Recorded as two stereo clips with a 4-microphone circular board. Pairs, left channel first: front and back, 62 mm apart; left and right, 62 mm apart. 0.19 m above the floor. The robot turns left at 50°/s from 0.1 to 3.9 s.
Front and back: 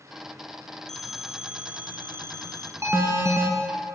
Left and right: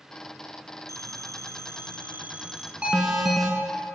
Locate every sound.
0.9 s a phone ringing: 80° right, 1.2 m; by 2.7 s 170° right, 1.2 m
2.8 s an alarm: 155° right, 1.6 m; by 3.5 s 170° left, 1.6 m